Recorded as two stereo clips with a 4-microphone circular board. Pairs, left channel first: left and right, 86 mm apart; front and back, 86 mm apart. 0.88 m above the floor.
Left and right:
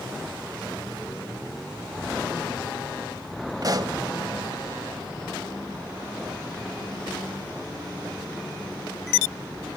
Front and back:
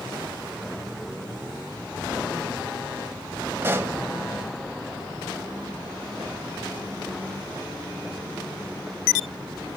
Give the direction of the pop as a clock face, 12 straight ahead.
4 o'clock.